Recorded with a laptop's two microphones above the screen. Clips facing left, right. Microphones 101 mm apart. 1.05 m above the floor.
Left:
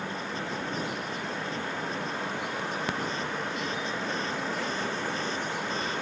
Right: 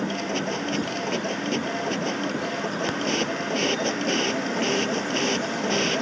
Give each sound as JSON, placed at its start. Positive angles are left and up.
{"t": 0.0, "sound": "a machine running", "side_deg": -75}